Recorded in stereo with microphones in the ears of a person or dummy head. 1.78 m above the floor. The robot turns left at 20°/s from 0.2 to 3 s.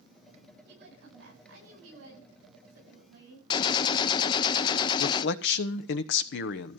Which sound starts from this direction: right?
A woman speaking, at 0.7 s.